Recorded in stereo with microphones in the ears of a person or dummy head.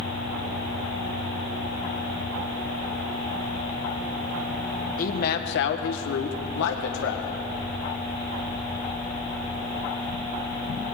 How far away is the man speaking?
About 1.4 m.